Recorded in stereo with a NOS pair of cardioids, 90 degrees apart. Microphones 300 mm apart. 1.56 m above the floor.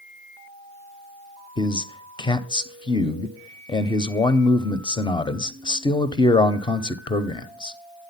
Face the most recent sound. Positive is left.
turn(degrees=15)